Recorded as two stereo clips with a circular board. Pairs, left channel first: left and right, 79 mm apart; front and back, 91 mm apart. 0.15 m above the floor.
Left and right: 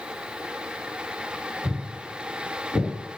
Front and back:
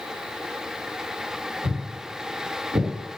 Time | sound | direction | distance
1.6 | footsteps | 170° right | 1.9 m